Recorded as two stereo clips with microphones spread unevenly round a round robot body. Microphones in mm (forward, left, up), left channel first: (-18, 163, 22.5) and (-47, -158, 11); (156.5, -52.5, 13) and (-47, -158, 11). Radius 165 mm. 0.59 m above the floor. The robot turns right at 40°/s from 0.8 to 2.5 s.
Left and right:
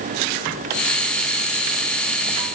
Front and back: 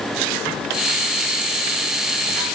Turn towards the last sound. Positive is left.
No sound to turn to.